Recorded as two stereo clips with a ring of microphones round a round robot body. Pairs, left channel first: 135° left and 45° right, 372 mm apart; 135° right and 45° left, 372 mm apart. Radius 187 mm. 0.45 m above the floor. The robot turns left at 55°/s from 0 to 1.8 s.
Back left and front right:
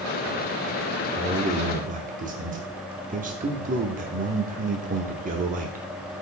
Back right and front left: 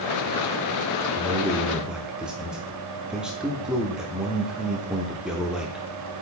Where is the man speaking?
5° right, 0.7 m; by 5.8 s 40° right, 0.7 m.